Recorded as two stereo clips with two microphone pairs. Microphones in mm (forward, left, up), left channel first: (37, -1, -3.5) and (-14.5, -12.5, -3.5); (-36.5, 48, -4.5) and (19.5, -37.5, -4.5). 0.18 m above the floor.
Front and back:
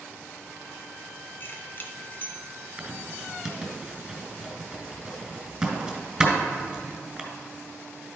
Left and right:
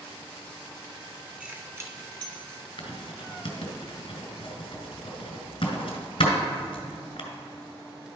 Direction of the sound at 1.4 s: 20° left.